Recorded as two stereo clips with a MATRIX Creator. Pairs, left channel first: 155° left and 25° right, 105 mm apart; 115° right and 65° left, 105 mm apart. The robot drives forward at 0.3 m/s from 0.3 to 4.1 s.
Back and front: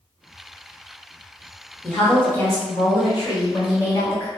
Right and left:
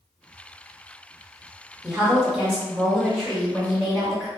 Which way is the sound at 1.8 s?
125° left.